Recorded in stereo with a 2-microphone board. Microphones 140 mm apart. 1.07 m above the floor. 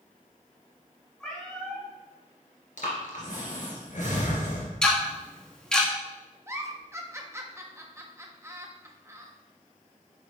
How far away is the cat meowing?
About 3 m.